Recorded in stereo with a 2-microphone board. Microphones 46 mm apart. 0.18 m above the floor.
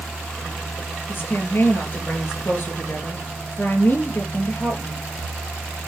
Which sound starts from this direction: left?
A woman speaking, at 1.1 s.